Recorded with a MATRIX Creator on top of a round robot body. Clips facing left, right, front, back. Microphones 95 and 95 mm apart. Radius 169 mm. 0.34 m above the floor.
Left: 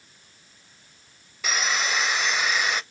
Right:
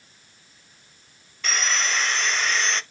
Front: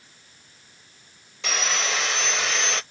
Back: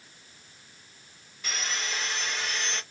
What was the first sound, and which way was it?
Sawing, 10° left.